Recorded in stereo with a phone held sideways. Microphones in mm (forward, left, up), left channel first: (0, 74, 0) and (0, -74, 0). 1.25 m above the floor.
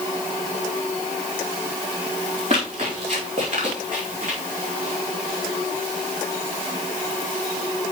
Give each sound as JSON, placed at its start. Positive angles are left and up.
{"t": 2.5, "sound": "running footsteps", "side_deg": -50, "distance_m": 4.0}